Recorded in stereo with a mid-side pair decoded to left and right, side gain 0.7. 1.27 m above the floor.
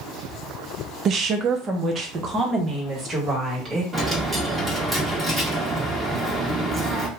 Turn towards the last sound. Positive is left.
turn(degrees=-10)